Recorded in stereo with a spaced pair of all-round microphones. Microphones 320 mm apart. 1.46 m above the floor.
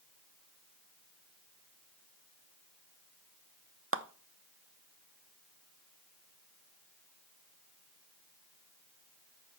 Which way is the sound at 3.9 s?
40° right (ahead or behind).